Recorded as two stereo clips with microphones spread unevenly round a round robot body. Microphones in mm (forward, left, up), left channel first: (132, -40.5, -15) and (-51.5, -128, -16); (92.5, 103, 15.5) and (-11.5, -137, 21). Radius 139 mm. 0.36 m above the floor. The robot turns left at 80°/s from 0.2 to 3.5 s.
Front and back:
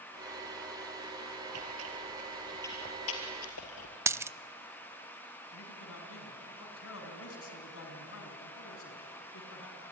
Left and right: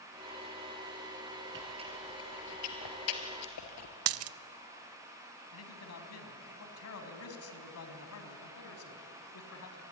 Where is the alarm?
I don't hear an alarm.